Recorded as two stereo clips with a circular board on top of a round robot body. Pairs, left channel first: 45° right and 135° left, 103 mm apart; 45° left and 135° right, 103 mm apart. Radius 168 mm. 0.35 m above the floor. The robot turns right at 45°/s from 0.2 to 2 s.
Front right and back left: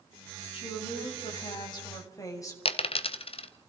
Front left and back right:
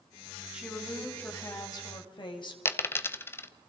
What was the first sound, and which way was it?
A woman speaking, 55° right.